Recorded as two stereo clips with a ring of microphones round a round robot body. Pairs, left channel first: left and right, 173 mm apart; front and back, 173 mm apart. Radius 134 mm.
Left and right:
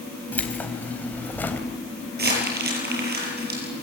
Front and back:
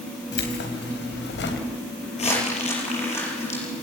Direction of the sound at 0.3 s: 10° left.